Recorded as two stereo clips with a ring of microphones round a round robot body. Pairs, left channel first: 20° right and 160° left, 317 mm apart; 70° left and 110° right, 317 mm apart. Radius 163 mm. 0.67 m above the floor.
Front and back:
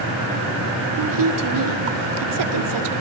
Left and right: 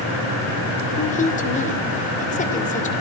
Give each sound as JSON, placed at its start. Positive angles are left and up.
{"t": 1.0, "sound": "a woman speaking", "azimuth_deg": 135, "distance_m": 2.5}